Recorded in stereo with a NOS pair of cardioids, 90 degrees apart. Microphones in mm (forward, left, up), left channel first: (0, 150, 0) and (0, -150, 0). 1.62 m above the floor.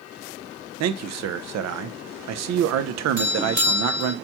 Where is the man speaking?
60° right, 0.6 m.